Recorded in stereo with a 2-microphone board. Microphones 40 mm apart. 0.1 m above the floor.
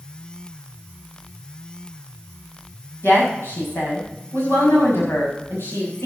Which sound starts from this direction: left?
A woman speaking, at 3.0 s.